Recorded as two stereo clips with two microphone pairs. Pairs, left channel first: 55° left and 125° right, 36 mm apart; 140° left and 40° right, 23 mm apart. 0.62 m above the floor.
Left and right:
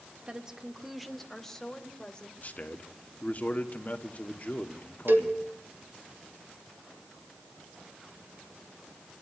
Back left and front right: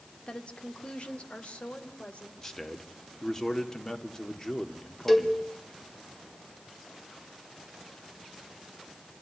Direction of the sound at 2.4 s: 85° left.